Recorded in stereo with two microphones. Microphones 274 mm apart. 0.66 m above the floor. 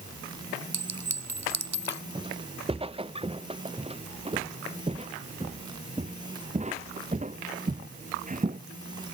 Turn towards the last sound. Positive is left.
turn(degrees=-30)  # may be behind; listen again after turning